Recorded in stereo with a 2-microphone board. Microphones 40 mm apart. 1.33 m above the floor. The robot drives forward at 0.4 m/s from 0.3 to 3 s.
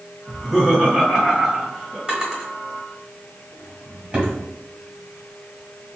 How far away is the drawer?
About 1.7 m.